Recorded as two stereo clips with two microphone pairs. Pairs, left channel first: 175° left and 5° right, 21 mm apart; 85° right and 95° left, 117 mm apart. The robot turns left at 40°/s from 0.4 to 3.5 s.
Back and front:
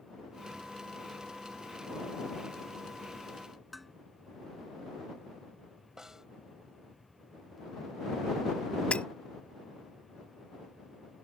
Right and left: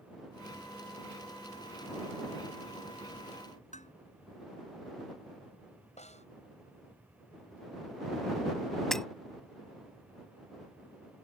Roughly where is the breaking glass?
Behind.